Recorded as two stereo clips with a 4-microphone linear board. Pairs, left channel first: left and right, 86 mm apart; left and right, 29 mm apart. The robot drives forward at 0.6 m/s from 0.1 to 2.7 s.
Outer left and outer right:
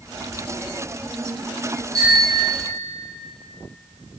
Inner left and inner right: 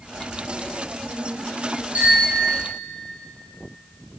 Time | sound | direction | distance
1.9 | a bicycle bell | 45° right (ahead or behind) | 7 m